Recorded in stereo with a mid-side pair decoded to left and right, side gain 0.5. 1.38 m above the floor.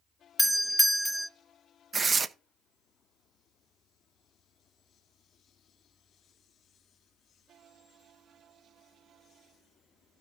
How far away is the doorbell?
About 0.5 m.